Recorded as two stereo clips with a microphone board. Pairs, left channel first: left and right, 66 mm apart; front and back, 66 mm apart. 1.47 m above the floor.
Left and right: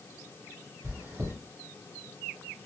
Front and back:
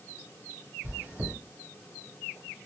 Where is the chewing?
125° right, 1.6 m.